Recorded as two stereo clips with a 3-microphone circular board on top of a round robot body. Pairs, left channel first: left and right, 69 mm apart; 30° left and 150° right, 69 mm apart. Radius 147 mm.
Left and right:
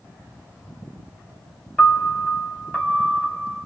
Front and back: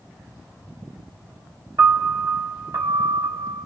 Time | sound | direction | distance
1.8 | a piano | 175° left | 1.5 m